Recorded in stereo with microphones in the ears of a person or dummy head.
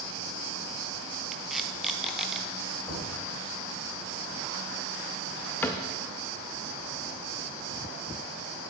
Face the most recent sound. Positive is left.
turn(degrees=10)  # may be behind; listen again after turning